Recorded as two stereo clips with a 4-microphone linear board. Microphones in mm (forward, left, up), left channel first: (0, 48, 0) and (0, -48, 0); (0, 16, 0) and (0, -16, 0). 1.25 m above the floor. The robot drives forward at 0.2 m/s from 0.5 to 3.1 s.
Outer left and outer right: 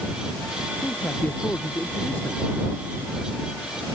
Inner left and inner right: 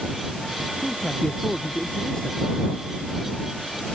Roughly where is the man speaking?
Left.